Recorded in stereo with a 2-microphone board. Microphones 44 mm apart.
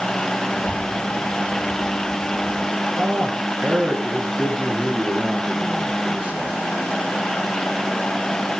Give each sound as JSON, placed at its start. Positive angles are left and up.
{"t": 0.5, "sound": "a child speaking", "side_deg": 65, "distance_m": 7.5}
{"t": 2.9, "sound": "a man speaking", "side_deg": -25, "distance_m": 3.5}